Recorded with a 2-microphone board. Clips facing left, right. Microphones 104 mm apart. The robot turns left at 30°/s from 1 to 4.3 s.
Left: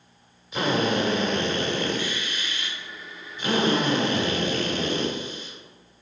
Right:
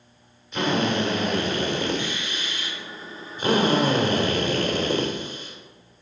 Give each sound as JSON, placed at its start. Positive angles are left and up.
{"t": 0.5, "sound": "a drill", "azimuth_deg": 5, "distance_m": 1.8}